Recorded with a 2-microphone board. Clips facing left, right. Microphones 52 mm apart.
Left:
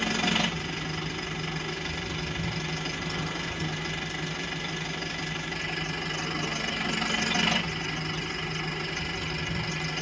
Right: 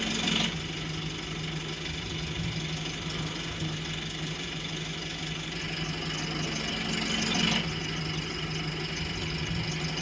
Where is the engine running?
50° left (ahead or behind), 1.1 m.